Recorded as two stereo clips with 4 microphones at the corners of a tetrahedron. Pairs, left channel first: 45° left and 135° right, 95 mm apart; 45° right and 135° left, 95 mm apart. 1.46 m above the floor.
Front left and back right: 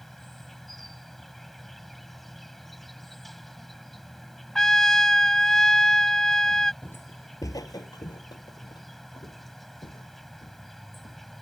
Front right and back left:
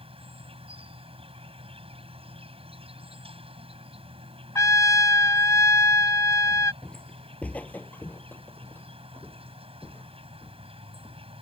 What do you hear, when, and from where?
0.0 s an insect: 135° left
4.5 s a trumpet: 35° right
6.8 s footsteps: 25° left; by 11.2 s 20° left